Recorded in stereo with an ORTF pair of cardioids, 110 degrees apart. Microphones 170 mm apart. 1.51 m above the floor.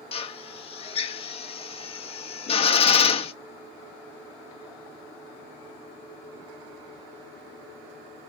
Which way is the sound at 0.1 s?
35° left.